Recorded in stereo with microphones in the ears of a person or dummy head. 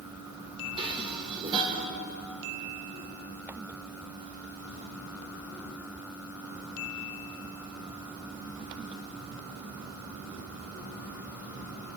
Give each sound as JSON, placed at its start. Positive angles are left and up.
{"t": 0.8, "sound": "dishes clattering", "side_deg": -20, "distance_m": 2.0}